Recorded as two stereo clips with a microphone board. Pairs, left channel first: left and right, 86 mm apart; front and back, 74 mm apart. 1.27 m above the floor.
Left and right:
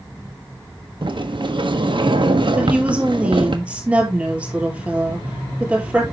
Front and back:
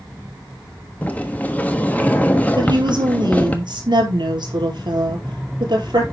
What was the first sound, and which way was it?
A sliding door, 70° right.